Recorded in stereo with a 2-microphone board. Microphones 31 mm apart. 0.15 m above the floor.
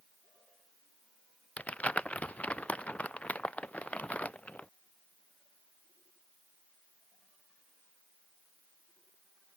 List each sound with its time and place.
1.6 s crumpling: 40° left (ahead or behind)